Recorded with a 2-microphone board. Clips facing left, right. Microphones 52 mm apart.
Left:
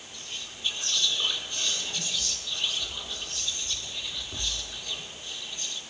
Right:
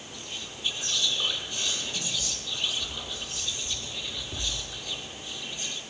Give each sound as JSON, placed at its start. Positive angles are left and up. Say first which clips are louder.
{"t": 0.1, "sound": "whispering", "louder": "even", "side_deg": -10, "distance_m": 4.0}